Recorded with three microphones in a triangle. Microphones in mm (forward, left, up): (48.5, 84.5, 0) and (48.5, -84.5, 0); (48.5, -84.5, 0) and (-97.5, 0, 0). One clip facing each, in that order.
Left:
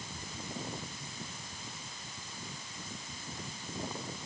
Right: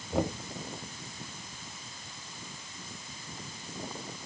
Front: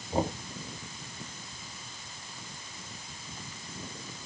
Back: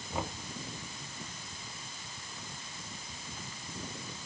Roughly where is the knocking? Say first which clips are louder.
Right 17 dB, front 8 dB; right.